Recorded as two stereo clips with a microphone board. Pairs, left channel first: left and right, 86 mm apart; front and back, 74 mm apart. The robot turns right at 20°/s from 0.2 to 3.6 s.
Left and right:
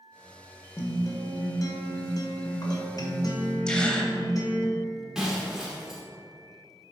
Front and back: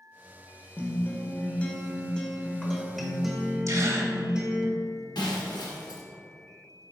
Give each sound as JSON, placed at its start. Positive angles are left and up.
{"t": 0.8, "sound": "a guitar", "azimuth_deg": 45, "distance_m": 1.1}
{"t": 3.7, "sound": "a gasp", "azimuth_deg": 165, "distance_m": 0.9}
{"t": 5.2, "sound": "breaking glass", "azimuth_deg": -5, "distance_m": 1.3}